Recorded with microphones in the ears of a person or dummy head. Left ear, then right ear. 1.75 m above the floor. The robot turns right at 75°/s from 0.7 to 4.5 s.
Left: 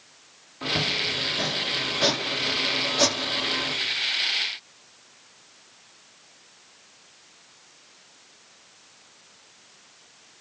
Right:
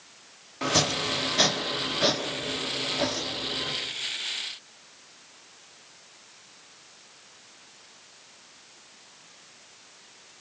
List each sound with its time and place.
0.6 s chopping: 80° right, 5 m; by 3.7 s 145° left, 5 m